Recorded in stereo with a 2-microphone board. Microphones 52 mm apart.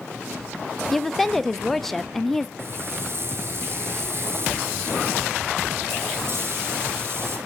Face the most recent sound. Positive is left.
turn(degrees=-50)  # may be behind; listen again after turning